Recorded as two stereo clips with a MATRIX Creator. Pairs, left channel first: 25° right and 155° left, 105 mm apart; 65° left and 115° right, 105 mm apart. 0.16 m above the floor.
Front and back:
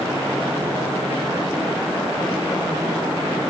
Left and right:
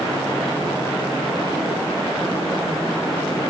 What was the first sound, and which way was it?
Only background noise.